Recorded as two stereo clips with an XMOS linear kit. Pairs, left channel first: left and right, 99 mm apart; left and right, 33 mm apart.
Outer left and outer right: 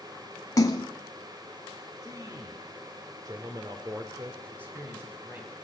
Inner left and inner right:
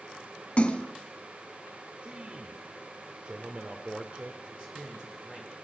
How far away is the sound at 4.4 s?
About 3 m.